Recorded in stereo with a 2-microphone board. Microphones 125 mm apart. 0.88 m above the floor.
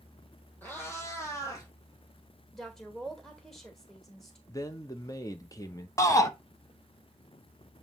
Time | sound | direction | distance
0.6 | a cat meowing | 15° left (ahead or behind) | 3 m
2.5 | a woman speaking | 5° left (ahead or behind) | 1.7 m
4.5 | a man speaking | 30° left (ahead or behind) | 0.9 m
6.0 | a shout | 25° left (ahead or behind) | 1.1 m